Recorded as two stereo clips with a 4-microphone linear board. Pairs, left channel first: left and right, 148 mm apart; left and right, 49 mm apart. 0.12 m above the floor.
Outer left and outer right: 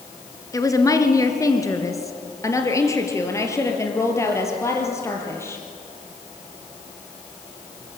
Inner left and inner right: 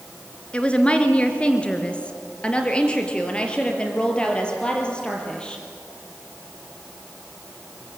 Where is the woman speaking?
20° left (ahead or behind), 1.9 m; by 5.6 s 15° left (ahead or behind), 4 m.